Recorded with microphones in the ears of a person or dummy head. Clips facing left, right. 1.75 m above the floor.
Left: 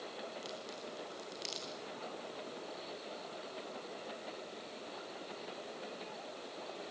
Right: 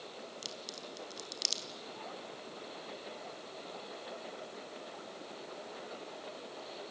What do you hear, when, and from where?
0.4 s a crack: 70° right (ahead or behind), 4 m